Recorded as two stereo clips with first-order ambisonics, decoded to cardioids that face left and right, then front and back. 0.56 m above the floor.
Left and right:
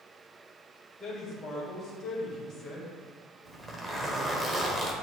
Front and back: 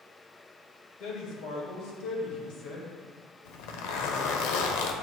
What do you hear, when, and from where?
1.0 s a man speaking: 25° left, 2 m
3.5 s a zipper: 10° right, 0.9 m